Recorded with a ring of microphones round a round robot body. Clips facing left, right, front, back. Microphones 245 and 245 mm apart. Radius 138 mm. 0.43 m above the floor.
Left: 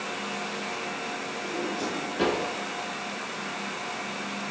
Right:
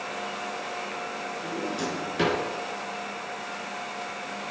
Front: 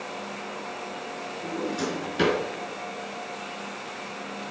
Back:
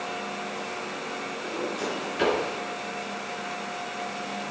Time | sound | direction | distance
1.4 | a drawer | 25° right | 4.5 m